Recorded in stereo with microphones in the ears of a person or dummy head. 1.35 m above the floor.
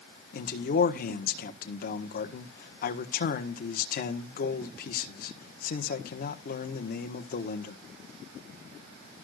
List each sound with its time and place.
0.3 s a man speaking: 45° left (ahead or behind), 1.4 m